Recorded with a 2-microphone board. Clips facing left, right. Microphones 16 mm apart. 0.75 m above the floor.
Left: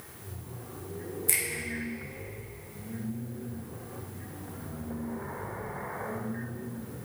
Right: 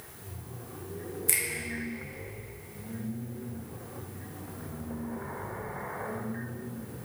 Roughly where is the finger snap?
Centre.